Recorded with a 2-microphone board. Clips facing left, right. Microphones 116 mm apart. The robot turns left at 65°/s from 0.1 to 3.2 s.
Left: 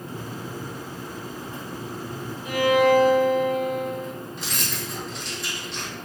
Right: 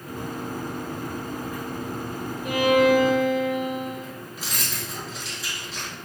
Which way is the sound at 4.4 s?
5° right (ahead or behind).